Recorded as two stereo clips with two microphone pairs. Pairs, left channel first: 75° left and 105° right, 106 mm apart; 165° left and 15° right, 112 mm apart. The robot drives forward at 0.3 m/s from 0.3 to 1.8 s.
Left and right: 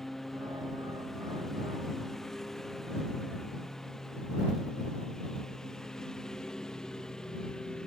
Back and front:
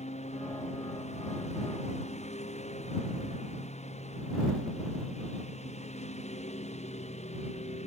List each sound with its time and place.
0.0 s a lawn mower: 160° left; by 7.9 s 155° left